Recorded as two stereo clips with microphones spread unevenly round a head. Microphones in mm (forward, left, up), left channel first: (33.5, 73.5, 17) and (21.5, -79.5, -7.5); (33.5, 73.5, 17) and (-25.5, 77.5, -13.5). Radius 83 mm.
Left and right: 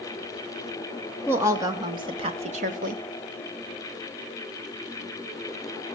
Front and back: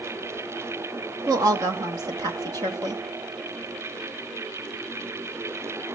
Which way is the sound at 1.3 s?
170° right.